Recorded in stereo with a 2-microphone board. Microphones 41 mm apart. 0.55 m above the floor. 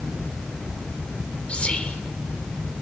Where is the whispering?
30° left (ahead or behind), 1.8 m.